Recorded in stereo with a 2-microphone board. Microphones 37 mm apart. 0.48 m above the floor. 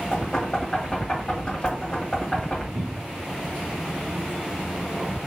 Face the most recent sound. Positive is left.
turn(degrees=-75)  # may be behind; listen again after turning